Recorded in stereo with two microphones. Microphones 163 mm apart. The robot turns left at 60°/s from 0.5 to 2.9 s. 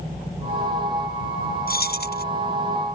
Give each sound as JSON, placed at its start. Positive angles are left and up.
{"t": 1.7, "sound": "keys jangling", "azimuth_deg": 110}